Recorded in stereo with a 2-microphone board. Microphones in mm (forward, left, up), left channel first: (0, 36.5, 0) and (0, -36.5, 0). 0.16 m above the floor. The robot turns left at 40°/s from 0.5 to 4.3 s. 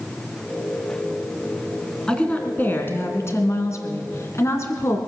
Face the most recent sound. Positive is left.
turn(degrees=75)